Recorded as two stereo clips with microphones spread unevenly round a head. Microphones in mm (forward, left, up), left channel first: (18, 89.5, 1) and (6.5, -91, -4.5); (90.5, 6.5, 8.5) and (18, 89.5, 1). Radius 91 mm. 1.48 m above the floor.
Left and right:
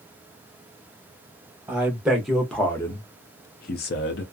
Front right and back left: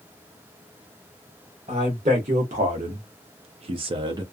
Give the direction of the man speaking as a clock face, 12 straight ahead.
6 o'clock.